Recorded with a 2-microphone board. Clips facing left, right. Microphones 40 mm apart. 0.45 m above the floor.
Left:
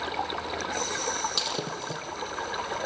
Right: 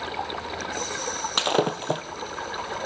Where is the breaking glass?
55° right (ahead or behind), 1.8 m.